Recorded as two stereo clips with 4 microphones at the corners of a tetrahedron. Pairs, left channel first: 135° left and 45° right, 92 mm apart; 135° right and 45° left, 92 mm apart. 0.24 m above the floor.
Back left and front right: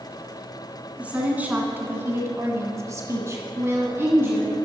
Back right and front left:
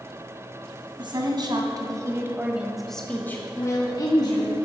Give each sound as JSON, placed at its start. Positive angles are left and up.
{"t": 1.0, "sound": "a woman speaking", "azimuth_deg": 30, "distance_m": 1.9}